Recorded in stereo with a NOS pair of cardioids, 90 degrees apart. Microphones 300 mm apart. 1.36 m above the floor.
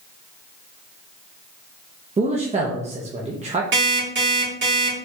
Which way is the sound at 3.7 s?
40° right.